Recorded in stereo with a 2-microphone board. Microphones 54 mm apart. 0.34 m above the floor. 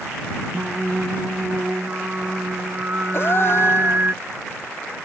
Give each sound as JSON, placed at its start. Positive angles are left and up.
{"t": 0.5, "sound": "singing", "side_deg": -35}
{"t": 3.1, "sound": "a gasp", "side_deg": 45}